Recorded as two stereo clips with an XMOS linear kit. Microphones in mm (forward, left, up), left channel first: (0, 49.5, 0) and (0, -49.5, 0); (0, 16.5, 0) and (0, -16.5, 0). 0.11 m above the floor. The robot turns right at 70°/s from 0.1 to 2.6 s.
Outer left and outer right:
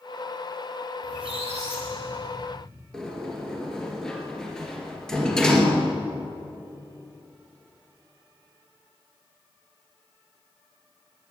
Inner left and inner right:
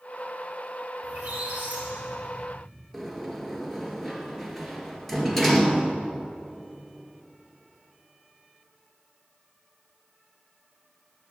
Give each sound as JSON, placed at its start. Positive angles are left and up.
{"t": 1.0, "sound": "a squeak", "azimuth_deg": -125, "distance_m": 3.5}
{"t": 2.9, "sound": "a sliding door", "side_deg": 5, "distance_m": 2.5}